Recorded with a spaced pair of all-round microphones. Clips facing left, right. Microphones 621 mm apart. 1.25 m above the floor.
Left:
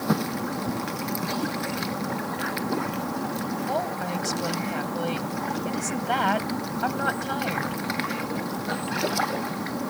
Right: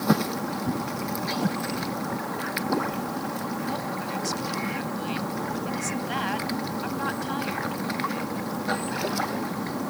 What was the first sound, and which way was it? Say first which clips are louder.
A whoosh: right 4 dB; 75° right (ahead or behind).